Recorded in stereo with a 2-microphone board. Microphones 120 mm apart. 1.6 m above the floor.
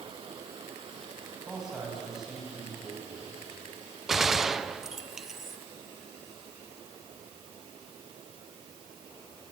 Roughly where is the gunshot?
Centre.